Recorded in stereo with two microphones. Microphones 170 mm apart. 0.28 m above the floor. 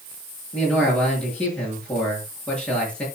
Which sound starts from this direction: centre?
A man speaking, at 0.5 s.